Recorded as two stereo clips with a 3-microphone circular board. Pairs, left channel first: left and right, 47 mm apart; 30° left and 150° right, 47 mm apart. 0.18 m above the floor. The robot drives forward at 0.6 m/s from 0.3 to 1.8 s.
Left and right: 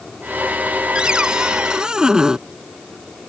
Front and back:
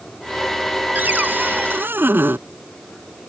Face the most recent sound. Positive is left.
turn(degrees=-160)